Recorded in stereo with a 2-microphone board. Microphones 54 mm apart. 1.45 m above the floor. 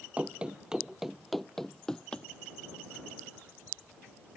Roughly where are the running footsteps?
Right.